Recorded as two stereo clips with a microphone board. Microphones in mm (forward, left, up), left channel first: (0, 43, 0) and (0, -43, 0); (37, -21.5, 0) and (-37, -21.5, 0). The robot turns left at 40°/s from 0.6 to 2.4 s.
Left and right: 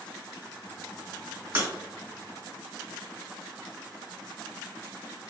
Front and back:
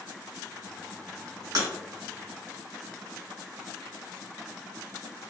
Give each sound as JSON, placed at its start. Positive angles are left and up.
{"t": 1.6, "sound": "breaking glass", "azimuth_deg": -150, "distance_m": 0.9}